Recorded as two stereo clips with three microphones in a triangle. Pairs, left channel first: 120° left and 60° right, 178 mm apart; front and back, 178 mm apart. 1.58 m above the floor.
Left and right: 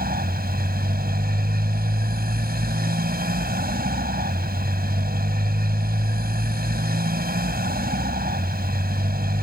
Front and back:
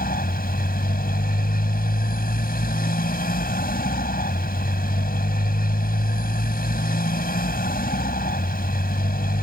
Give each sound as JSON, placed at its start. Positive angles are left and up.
{"t": 0.0, "sound": "a motorcycle", "azimuth_deg": -30}